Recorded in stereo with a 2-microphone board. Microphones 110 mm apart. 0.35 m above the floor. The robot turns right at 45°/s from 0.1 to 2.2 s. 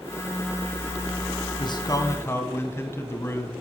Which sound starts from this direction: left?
A man speaking, at 1.6 s.